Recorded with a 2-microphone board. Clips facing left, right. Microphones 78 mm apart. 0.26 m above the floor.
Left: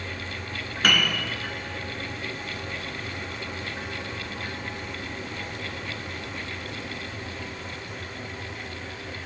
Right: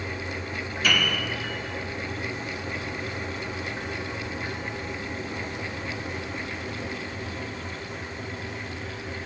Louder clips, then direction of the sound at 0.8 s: Left 1 dB; 60° left (ahead or behind).